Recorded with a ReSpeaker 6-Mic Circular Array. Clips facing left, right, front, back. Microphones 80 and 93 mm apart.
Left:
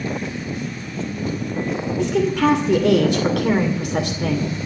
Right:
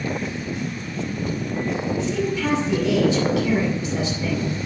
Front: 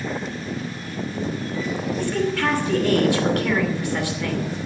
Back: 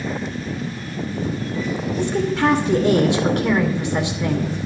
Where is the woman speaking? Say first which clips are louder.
Left 10 dB, back 4 dB; 110° left, 2.5 m.